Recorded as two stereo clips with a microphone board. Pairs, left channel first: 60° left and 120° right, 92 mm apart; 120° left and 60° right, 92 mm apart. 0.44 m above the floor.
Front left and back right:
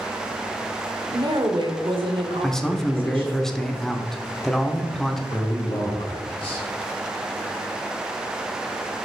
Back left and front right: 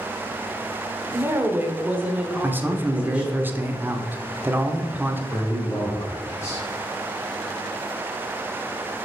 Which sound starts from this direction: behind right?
A woman speaking, at 1.1 s.